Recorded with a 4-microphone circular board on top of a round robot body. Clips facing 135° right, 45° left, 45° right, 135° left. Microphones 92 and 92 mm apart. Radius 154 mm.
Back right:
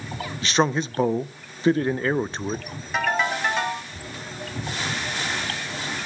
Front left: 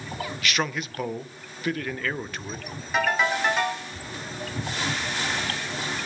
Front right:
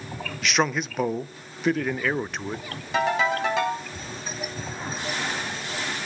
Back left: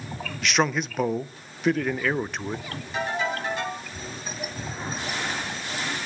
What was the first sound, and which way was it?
A man speaking, 135° right.